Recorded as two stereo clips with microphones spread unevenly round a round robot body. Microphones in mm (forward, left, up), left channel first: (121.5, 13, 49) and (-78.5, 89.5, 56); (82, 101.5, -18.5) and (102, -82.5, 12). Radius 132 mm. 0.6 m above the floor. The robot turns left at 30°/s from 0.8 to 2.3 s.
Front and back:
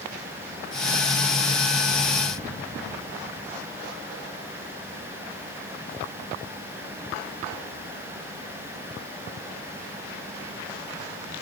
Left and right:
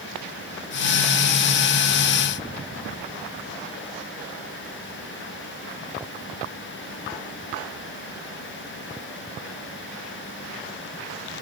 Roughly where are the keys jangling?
No keys jangling in this recording.